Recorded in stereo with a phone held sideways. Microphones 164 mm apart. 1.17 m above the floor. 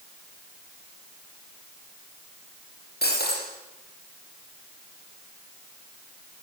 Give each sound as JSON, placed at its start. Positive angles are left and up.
{"t": 3.0, "sound": "breaking glass", "side_deg": 80, "distance_m": 6.0}